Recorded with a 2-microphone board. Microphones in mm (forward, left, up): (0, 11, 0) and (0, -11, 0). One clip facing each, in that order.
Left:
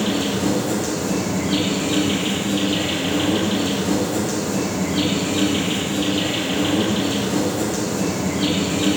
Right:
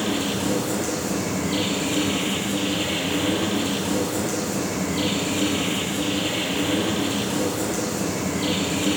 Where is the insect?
25° left (ahead or behind), 5.5 m.